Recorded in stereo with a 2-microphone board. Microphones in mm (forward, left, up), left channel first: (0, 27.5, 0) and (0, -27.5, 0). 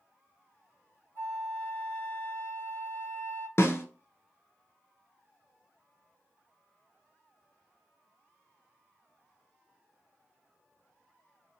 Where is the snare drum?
50° left (ahead or behind), 0.6 m.